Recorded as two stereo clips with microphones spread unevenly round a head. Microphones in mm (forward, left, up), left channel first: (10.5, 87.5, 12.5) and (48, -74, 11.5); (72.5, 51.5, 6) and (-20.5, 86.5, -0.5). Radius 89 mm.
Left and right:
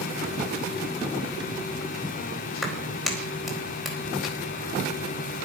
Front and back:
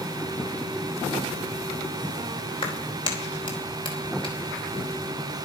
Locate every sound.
2.6 s a clap: 10° left, 4 m